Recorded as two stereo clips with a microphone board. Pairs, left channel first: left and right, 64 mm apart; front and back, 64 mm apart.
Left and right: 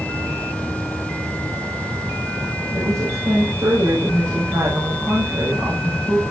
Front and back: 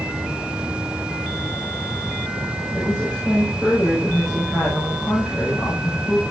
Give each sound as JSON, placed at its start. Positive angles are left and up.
{"t": 2.7, "sound": "a woman speaking", "azimuth_deg": -85, "distance_m": 8.0}